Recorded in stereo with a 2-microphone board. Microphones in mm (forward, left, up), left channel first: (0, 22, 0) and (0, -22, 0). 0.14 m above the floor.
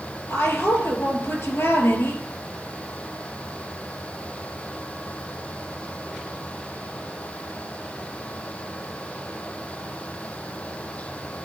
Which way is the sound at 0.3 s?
65° left (ahead or behind).